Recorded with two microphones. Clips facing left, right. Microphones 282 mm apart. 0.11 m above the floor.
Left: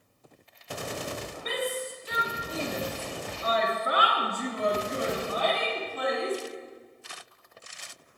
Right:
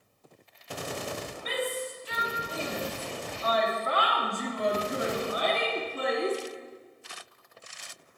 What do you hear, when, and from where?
1.4 s a shout: 60° left (ahead or behind), 3 m; by 6.4 s 40° right (ahead or behind), 2 m